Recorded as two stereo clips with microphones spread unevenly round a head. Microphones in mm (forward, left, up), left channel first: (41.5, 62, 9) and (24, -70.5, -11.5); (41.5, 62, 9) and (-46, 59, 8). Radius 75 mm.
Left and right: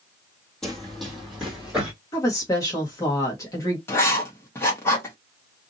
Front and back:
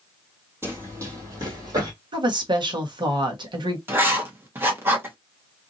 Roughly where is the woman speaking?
Behind left.